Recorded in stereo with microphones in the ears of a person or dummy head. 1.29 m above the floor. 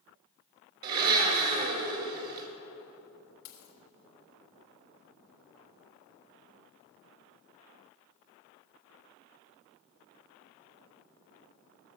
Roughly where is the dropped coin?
Left.